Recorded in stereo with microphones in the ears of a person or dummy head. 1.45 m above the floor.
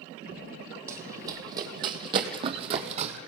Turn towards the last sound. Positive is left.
turn(degrees=-35)  # may be behind; listen again after turning